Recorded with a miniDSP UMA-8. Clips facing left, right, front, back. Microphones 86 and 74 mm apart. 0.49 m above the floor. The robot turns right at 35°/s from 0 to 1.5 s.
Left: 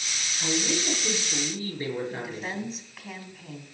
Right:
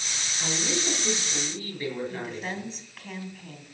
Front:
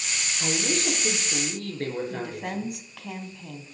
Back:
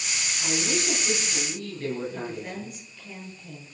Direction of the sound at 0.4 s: 10° right.